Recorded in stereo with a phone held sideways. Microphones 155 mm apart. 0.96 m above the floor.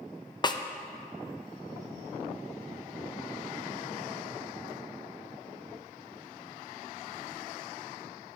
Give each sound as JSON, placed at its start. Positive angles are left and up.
{"t": 0.4, "sound": "a snare drum", "side_deg": 30, "distance_m": 0.5}